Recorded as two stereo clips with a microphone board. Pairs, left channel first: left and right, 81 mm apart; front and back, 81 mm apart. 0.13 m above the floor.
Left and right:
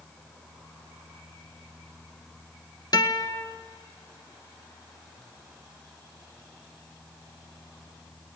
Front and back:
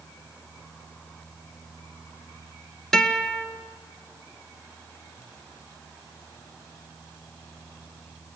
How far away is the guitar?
About 1.4 m.